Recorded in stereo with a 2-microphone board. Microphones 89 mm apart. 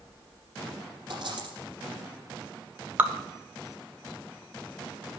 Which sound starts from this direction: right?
A dropped coin, at 1.1 s.